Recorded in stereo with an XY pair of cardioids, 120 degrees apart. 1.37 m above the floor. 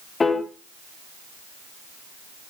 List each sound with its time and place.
0.2 s a piano: 25° left, 1.1 m